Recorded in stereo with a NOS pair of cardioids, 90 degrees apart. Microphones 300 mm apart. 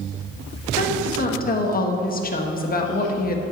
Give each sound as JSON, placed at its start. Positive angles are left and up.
{"t": 0.8, "sound": "a woman speaking", "azimuth_deg": 30, "distance_m": 1.5}